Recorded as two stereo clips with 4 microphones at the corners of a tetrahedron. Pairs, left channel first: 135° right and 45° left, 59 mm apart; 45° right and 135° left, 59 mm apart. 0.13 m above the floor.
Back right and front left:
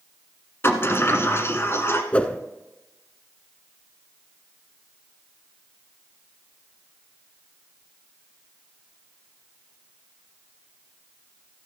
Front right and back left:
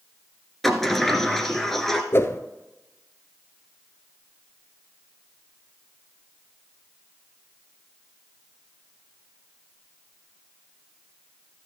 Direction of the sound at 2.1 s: 70° right.